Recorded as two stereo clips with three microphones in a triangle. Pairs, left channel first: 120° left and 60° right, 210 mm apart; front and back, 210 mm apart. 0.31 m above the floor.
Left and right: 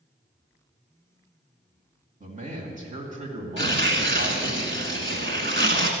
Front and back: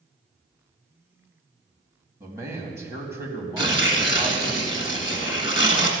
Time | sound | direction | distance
2.2 | a man speaking | 105° right | 2 m
3.6 | tearing paper | 30° right | 1.6 m